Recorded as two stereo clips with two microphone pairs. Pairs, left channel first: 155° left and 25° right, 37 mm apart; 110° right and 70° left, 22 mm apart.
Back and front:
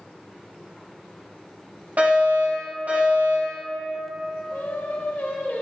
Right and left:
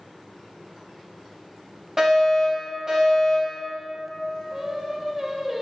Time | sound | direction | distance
2.0 | a fire alarm | straight ahead | 2.5 m
4.5 | singing | 130° left | 1.0 m